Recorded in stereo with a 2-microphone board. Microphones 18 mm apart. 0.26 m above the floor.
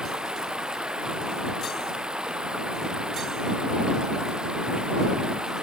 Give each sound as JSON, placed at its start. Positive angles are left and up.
{"t": 0.0, "sound": "running water", "side_deg": -55}